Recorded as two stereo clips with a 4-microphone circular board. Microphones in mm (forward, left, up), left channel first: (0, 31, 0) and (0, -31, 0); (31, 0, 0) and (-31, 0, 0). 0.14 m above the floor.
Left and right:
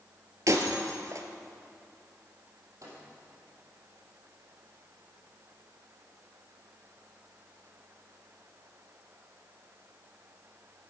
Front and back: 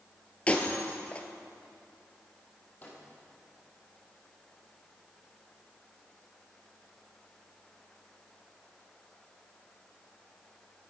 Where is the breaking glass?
65° right, 1.3 m.